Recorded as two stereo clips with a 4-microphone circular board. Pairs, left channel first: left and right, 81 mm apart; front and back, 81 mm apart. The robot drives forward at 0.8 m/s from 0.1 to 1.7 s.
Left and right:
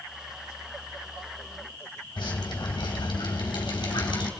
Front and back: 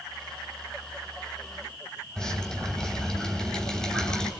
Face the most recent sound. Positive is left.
turn(degrees=80)